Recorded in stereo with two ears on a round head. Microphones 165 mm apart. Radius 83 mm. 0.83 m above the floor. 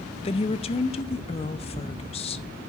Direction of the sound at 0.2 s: 35° left (ahead or behind).